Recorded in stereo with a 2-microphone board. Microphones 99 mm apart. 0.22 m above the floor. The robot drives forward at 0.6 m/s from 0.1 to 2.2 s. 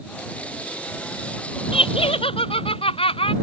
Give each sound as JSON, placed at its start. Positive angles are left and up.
{"t": 1.7, "sound": "laughter", "side_deg": 80}